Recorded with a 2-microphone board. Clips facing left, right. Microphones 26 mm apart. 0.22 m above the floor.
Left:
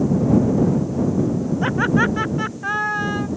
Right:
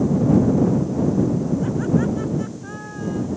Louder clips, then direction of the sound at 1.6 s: Left 6 dB; 60° left (ahead or behind).